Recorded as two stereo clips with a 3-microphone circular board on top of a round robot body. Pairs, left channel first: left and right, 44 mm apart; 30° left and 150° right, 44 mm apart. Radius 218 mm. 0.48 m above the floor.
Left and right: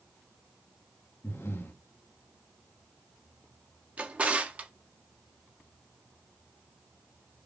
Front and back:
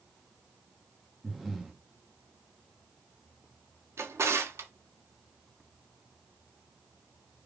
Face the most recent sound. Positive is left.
turn(degrees=-150)